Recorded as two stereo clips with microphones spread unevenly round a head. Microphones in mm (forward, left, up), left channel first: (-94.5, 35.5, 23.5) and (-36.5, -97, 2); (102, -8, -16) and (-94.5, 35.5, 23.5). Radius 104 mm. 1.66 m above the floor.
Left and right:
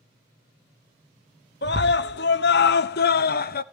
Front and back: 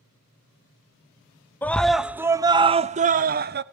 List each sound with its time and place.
1.6 s a scream: 70° left, 1.1 m; by 3.6 s 125° left, 1.2 m